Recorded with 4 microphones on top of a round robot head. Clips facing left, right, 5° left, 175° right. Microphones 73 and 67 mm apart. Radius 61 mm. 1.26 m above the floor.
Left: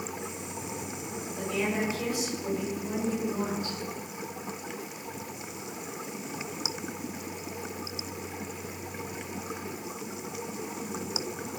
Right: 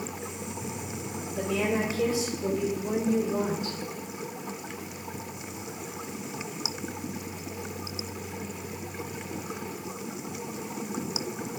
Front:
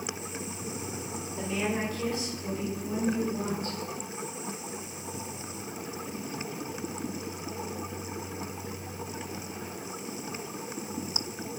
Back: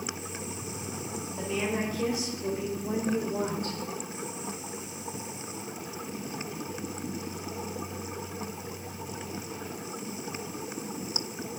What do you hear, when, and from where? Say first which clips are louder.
1.4 s a woman speaking: right 3 dB, even; 85° right, 5 m; by 3.8 s 125° right, 4.5 m